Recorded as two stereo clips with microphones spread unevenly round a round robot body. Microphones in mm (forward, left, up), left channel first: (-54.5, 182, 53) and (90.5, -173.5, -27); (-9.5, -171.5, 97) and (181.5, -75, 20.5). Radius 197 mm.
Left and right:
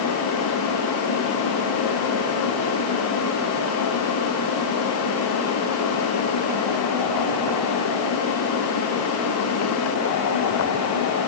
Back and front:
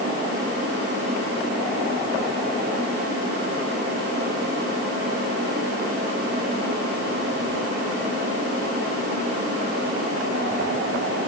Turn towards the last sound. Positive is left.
No sound to turn to.